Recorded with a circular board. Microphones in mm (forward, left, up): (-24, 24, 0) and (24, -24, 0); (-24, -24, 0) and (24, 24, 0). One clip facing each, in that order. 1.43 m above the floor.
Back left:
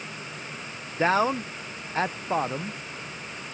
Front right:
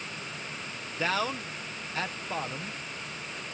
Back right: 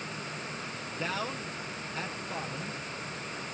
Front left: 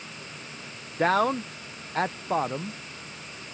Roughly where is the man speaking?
Left.